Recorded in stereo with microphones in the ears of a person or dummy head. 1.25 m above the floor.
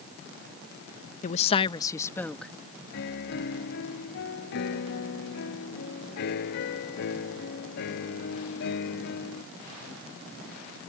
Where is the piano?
60° left (ahead or behind).